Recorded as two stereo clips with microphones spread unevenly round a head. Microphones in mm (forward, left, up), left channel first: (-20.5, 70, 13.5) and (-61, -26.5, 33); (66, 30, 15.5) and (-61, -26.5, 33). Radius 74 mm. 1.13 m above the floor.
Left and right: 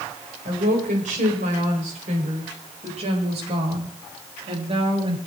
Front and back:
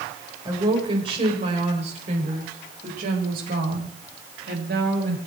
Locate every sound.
0.5 s a woman speaking: 95° right, 5.5 m; by 5.2 s 150° right, 7 m